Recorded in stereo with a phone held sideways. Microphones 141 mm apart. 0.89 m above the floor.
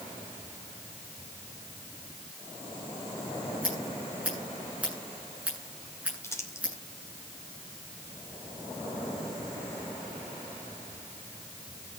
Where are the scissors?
10° right (ahead or behind), 9.5 m.